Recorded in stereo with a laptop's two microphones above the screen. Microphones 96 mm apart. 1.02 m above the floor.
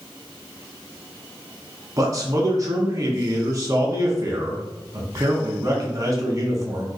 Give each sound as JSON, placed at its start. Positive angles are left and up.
{"t": 2.0, "sound": "a man speaking", "side_deg": -40, "distance_m": 0.9}